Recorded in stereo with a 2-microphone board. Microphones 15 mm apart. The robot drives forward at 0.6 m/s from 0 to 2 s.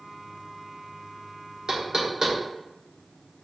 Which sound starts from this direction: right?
Knocking, at 1.7 s.